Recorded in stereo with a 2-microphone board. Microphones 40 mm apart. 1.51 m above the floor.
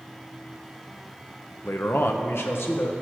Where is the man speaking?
65° left (ahead or behind), 0.8 m; by 2.9 s 80° left, 1.6 m.